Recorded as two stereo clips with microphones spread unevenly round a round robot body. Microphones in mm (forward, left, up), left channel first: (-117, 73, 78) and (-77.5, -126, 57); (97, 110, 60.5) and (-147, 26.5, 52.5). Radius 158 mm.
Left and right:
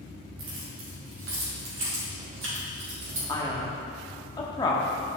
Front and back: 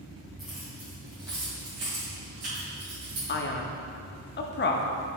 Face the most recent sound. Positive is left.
turn(degrees=35)